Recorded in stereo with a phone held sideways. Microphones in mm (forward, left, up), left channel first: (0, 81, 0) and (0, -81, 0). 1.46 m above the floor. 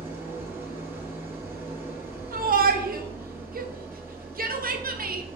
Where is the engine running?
10° right (ahead or behind), 1.0 m.